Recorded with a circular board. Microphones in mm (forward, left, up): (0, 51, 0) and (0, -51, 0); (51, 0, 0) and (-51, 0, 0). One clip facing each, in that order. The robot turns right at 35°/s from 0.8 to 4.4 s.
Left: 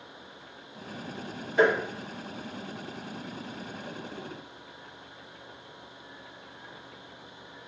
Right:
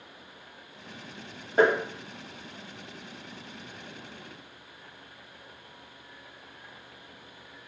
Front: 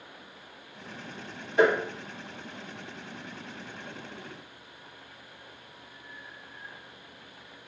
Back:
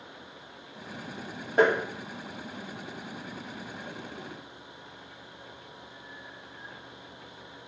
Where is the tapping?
140° right, 0.8 m; by 1.8 s 130° right, 0.8 m.